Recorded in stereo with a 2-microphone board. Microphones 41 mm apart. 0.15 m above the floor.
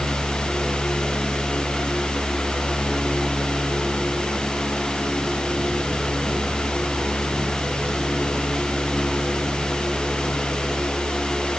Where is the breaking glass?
I don't hear breaking glass.